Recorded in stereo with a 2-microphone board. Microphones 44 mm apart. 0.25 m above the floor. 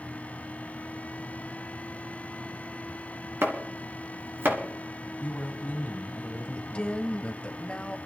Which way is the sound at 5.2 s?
40° left (ahead or behind).